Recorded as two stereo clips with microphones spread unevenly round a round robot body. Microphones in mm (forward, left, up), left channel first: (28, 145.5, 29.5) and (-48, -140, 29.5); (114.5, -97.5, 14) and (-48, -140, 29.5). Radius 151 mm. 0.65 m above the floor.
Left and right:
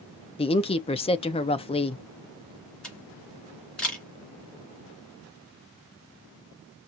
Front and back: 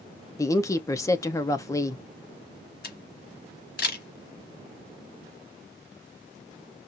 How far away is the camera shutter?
About 2.5 m.